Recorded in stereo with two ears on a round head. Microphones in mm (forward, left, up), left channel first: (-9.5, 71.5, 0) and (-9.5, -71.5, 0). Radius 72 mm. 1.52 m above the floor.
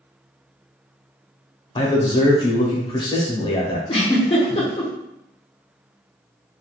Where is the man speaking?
30° left (ahead or behind), 0.6 m.